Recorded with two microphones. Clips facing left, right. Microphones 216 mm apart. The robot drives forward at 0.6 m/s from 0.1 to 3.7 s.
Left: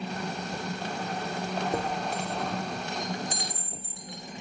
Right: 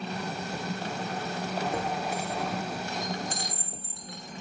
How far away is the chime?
About 5.5 m.